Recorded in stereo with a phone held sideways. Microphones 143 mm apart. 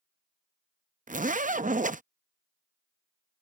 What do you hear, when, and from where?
1.1 s a zipper: 65° right (ahead or behind)